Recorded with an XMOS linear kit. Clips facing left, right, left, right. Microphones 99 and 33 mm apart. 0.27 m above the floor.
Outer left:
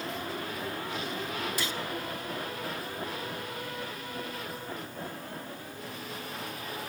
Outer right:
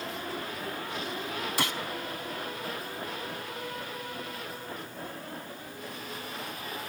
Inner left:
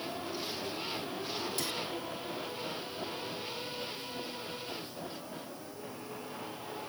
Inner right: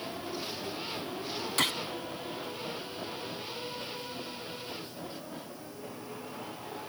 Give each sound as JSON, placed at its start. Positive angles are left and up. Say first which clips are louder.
{"t": 1.6, "sound": "a gunshot", "louder": "outer right 3 dB, inner right 7 dB", "side_deg": -65, "distance_m": 1.0}